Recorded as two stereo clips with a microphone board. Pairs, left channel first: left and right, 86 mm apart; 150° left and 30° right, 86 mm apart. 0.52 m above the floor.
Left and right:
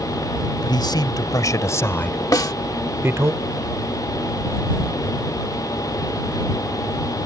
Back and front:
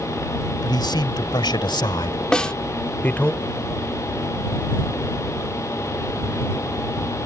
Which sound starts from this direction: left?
A snare drum, at 2.3 s.